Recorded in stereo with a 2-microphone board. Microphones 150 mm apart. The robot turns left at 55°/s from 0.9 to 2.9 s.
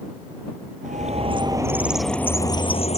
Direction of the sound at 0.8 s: 120° right.